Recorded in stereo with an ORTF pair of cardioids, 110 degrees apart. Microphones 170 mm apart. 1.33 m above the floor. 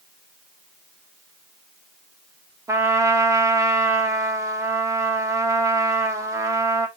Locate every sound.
2.7 s a trumpet: 20° right, 1.0 m